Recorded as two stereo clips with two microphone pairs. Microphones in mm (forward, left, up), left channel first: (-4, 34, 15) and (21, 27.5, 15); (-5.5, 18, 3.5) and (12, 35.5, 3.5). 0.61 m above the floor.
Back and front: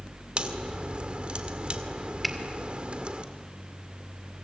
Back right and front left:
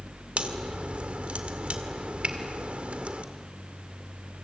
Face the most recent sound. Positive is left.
turn(degrees=75)